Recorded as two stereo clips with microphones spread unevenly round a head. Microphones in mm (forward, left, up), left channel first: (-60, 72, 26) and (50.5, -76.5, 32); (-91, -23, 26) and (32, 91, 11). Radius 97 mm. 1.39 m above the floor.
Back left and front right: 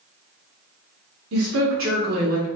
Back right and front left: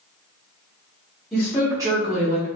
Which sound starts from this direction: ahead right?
A woman speaking, at 1.3 s.